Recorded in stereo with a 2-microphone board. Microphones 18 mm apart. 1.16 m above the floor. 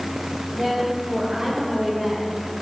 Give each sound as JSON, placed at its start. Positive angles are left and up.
{"t": 0.5, "sound": "a woman speaking", "side_deg": -60, "distance_m": 3.0}